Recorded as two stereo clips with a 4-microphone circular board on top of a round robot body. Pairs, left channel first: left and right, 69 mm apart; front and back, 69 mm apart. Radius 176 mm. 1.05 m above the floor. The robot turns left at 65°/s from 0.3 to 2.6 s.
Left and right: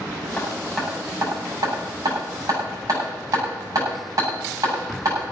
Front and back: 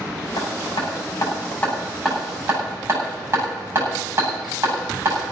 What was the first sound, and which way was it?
Hammering, 20° left.